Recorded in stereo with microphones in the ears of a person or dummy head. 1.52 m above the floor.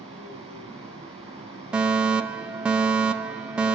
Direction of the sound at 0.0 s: 25° right (ahead or behind).